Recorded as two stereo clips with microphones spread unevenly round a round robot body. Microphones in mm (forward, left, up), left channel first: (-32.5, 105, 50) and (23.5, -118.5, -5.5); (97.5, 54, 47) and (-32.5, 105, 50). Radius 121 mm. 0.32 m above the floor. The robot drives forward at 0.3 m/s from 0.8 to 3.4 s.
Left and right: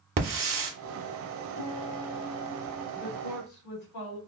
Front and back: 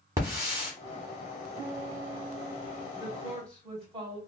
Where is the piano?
100° left, 2.5 m; by 2.9 s 110° left, 2.5 m.